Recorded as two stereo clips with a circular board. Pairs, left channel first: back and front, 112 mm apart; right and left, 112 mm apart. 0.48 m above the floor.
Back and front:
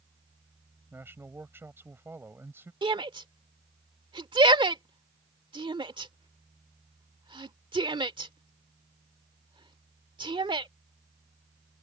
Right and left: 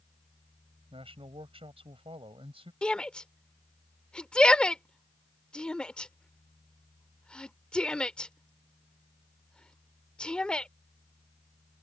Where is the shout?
10° right.